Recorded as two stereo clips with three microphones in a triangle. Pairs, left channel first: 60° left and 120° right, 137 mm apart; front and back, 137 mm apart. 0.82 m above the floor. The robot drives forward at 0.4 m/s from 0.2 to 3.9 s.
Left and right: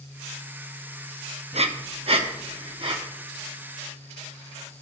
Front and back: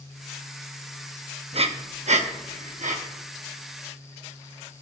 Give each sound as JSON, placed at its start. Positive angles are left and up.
{"t": 1.5, "sound": "breathing", "azimuth_deg": -145, "distance_m": 0.5}